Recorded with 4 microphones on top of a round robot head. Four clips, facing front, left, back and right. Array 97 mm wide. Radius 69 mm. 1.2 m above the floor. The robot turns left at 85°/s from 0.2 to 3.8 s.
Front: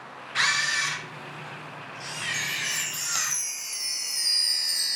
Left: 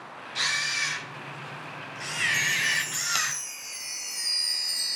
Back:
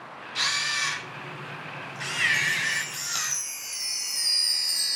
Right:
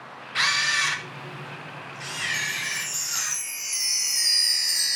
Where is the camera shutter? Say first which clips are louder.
Right 6 dB, front 4 dB; 45° right, 1.1 m; by 3.3 s 60° left, 1.1 m.